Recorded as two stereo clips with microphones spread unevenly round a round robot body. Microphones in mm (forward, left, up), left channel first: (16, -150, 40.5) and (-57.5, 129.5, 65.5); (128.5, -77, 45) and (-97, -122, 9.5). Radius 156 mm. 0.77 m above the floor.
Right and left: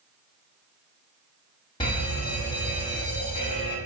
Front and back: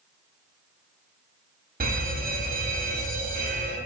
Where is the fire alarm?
140° right, 2.5 m.